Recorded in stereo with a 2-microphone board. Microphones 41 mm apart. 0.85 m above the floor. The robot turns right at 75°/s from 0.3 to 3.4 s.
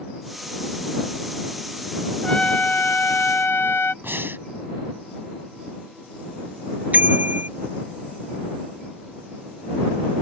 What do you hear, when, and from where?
2.2 s a trumpet: 20° left; by 3.9 s 110° left
4.0 s breathing: 65° right (ahead or behind)
6.9 s a bicycle bell: 40° right (ahead or behind)